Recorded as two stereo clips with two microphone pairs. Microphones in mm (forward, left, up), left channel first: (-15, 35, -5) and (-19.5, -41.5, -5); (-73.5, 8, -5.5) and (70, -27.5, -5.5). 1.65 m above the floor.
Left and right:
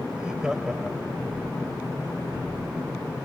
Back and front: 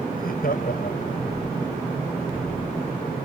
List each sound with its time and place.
0.1 s laughter: 175° right; by 1.4 s straight behind